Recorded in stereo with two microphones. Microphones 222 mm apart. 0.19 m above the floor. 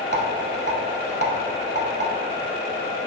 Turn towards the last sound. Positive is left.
turn(degrees=-50)  # may be behind; listen again after turning